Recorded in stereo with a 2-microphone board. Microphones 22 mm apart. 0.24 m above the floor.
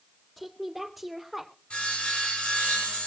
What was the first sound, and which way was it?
A woman speaking, centre (ahead or behind).